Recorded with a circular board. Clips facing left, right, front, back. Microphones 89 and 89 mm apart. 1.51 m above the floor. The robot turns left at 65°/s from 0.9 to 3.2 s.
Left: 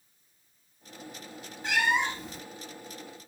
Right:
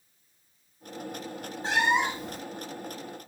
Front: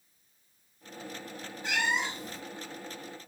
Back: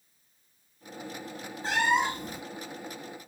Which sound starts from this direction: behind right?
A cat meowing, at 1.6 s.